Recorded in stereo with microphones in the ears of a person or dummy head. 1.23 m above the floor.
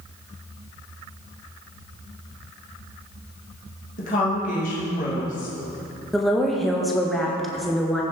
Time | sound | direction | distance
4.0 | a woman speaking | 45° left (ahead or behind) | 1.8 m
6.1 | a woman speaking | centre (ahead or behind) | 1.4 m